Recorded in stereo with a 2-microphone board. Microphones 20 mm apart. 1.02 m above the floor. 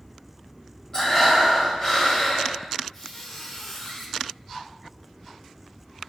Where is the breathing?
40° left (ahead or behind), 1.5 m.